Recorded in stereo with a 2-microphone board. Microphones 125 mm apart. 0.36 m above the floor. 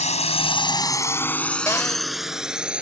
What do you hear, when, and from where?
0.0 s a drone: 60° left (ahead or behind); by 2.8 s 10° right (ahead or behind)
1.7 s a cupboard door: 20° left (ahead or behind)